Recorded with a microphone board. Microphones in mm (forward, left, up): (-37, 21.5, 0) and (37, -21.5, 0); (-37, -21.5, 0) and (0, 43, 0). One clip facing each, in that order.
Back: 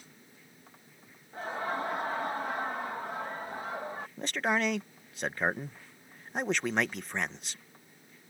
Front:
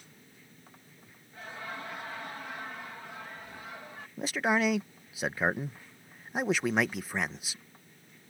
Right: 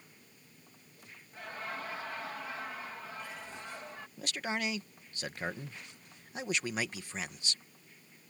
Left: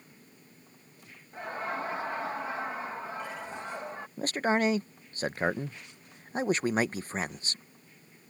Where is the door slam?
No door slam in this recording.